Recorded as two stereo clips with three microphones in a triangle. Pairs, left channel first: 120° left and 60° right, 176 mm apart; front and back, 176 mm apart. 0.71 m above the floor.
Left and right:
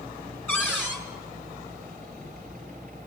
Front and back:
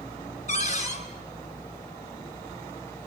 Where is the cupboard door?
40° left, 3.5 m.